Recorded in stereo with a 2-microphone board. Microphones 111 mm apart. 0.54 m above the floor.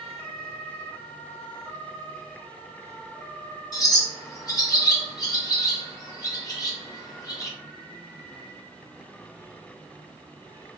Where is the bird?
35° left (ahead or behind), 0.9 m.